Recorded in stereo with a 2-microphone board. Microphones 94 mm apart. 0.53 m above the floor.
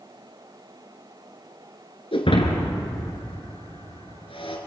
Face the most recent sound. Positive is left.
turn(degrees=75)  # may be behind; listen again after turning